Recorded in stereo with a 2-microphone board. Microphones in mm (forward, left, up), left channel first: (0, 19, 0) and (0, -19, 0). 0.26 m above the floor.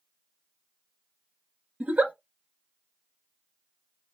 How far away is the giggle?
About 0.7 m.